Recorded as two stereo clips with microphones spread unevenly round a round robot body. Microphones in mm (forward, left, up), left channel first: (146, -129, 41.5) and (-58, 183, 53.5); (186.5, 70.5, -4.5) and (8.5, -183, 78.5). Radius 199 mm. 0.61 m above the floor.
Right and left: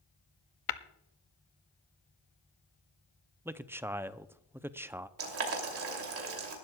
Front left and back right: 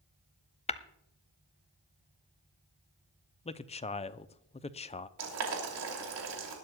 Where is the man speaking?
40° left, 0.6 m.